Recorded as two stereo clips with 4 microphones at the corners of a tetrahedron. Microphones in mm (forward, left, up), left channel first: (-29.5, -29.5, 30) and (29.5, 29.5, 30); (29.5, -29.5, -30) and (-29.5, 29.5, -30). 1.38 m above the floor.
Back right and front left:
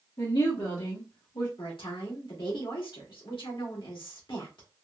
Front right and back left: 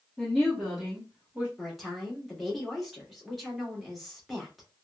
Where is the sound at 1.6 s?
135° right, 1.5 m.